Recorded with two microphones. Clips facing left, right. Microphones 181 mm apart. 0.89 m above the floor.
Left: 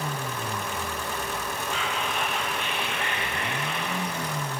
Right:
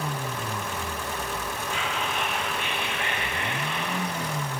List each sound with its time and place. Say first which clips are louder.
1.7 s whispering: even; 40° left (ahead or behind), 1.1 m